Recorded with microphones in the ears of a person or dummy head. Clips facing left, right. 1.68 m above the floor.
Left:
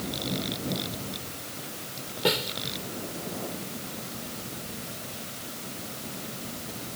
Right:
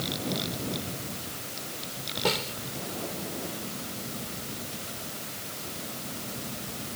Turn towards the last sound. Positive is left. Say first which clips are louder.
# left 2 dB
turn(degrees=25)  # may be behind; listen again after turning